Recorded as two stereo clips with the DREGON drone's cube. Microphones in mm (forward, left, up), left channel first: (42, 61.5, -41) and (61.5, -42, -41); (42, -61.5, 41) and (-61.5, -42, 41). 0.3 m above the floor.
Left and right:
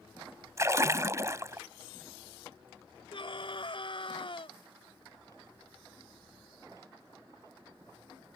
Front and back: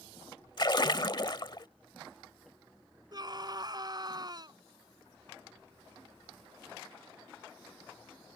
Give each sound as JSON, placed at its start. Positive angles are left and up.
{"t": 0.6, "sound": "a splash", "azimuth_deg": -30}
{"t": 3.1, "sound": "a scream", "azimuth_deg": 125}